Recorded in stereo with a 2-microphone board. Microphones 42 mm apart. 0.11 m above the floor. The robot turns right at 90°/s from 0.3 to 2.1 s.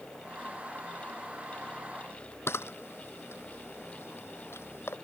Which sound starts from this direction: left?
A camera shutter, at 2.5 s.